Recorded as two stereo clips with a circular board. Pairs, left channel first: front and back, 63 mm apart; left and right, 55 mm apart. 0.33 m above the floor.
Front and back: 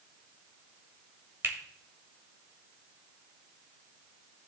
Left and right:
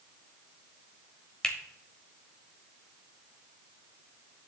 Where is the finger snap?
165° left, 1.4 m.